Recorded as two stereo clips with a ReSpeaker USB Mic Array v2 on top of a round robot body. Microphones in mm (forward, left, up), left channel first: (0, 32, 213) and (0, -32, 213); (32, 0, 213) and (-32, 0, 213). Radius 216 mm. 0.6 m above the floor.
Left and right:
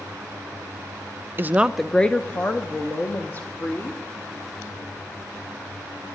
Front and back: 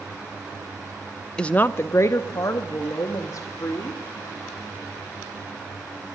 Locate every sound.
1.4 s a woman speaking: 70° right, 0.6 m; by 4.0 s 45° left, 1.7 m